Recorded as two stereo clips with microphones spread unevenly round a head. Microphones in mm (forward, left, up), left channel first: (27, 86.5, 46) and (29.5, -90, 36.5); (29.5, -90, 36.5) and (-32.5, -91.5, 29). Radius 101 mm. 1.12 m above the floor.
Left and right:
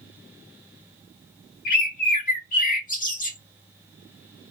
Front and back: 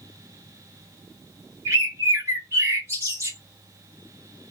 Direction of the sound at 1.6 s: 135° left.